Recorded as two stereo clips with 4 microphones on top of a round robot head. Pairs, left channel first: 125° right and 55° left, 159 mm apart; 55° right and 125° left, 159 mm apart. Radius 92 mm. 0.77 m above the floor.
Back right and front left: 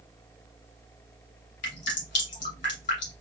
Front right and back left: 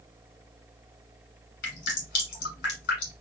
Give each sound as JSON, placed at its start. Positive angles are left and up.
{"t": 1.6, "sound": "dripping", "azimuth_deg": -85, "distance_m": 2.5}